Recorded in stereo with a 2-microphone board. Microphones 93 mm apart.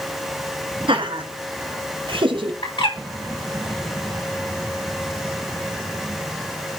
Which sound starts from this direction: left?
A bird, at 2.6 s.